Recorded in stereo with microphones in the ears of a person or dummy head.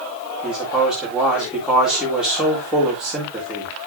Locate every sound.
0.4 s a man speaking: centre (ahead or behind), 3.5 m